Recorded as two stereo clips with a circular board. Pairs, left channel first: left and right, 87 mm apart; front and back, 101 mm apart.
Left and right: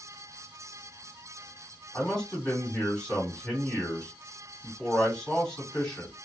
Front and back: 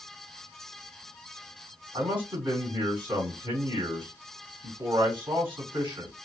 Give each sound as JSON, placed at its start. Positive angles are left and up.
{"t": 1.9, "sound": "a man speaking", "azimuth_deg": 170, "distance_m": 1.9}